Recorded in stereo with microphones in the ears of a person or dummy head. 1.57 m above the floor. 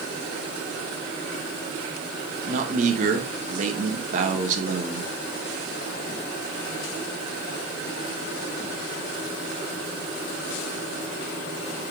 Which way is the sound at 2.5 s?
40° right (ahead or behind).